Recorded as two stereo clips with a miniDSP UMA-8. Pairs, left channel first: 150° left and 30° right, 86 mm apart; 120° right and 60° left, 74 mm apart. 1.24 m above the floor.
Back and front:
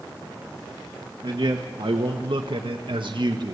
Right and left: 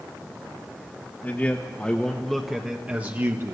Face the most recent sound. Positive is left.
turn(degrees=10)